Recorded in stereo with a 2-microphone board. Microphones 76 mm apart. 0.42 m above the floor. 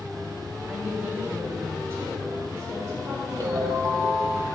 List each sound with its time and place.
0.7 s a woman speaking: 20° right (ahead or behind), 2 m; by 4.4 s 45° right (ahead or behind), 4.5 m
3.4 s a ringtone: 55° right (ahead or behind), 1.3 m